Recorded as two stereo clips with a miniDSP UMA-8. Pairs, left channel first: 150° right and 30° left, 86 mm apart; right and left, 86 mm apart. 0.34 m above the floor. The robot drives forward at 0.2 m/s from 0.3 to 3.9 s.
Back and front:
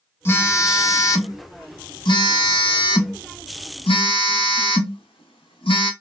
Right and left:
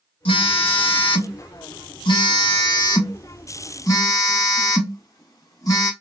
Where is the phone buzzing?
90° right, 0.6 m; by 5.9 s 140° right, 1.0 m.